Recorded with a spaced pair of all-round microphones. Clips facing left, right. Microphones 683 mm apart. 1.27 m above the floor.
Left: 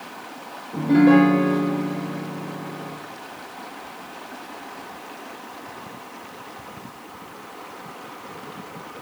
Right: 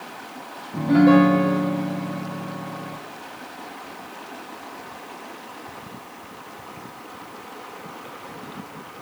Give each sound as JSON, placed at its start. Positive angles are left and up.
{"t": 0.7, "sound": "a piano", "side_deg": -15, "distance_m": 0.6}